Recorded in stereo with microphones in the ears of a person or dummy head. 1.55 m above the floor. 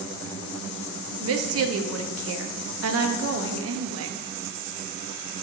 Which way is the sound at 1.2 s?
70° right (ahead or behind).